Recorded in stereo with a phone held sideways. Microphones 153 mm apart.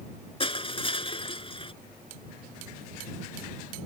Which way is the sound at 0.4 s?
35° left (ahead or behind).